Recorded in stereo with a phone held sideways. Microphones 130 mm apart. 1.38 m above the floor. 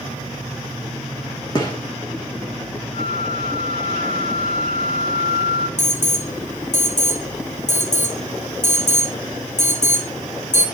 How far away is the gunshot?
About 2.5 m.